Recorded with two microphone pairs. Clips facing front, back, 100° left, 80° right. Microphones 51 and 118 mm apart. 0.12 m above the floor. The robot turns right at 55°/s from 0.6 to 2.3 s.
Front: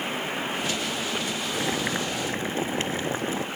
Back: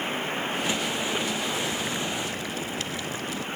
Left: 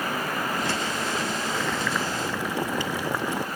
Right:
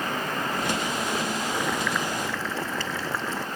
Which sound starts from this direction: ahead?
Boiling, at 1.5 s.